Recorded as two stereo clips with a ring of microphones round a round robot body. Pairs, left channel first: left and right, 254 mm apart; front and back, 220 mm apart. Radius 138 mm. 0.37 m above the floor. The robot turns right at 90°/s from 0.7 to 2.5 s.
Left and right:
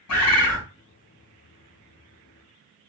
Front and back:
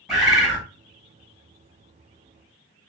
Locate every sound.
0.1 s a bird: 90° left, 1.8 m